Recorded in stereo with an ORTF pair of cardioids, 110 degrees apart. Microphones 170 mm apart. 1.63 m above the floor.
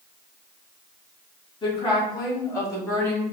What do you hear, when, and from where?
1.6 s a woman speaking: 30° left, 3 m; by 3.2 s 15° left, 5 m